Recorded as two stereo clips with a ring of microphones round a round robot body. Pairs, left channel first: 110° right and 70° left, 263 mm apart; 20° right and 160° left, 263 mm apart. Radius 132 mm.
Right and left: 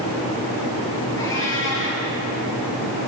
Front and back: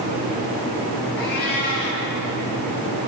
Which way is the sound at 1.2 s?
35° right.